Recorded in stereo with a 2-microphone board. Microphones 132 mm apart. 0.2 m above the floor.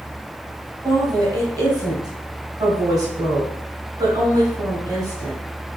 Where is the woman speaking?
30° right (ahead or behind), 1.2 m.